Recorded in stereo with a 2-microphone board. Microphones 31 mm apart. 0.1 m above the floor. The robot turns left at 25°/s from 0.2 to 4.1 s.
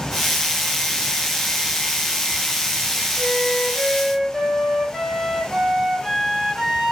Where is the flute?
10° left (ahead or behind), 1.5 m; by 6.9 s 5° right (ahead or behind), 1.5 m.